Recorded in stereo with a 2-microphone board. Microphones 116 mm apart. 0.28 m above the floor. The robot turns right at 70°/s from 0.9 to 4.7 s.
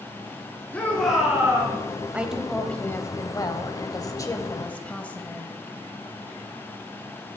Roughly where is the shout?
Behind.